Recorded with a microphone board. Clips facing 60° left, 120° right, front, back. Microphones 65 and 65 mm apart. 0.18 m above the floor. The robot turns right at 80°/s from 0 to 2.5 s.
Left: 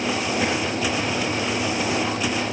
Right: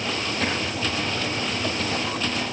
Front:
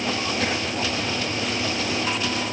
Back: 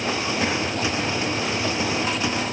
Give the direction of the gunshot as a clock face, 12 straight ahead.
I don't hear a gunshot.